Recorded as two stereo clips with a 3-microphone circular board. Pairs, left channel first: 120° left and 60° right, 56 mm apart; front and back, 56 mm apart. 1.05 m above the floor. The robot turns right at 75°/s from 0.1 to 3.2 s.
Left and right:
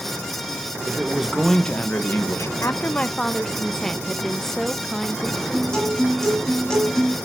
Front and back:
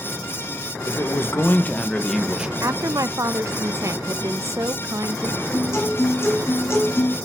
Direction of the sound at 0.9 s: 10° right.